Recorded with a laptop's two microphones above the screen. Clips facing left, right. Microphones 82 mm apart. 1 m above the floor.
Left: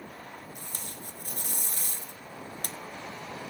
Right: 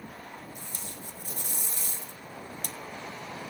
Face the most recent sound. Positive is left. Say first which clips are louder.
# even
turn(degrees=50)  # may be behind; listen again after turning